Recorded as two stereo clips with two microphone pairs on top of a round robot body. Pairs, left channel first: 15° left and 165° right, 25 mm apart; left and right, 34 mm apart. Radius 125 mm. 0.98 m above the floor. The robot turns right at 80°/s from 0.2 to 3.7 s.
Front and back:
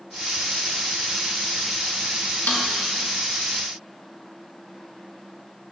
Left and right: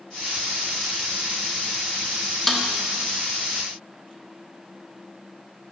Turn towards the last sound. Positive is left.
turn(degrees=100)